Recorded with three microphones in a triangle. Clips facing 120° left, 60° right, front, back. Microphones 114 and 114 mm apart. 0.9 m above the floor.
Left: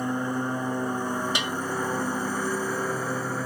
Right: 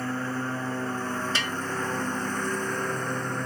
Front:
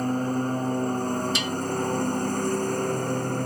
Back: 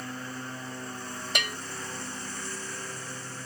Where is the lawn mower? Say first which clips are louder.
Left 3 dB, front 13 dB; 45° left; by 3.5 s 35° left.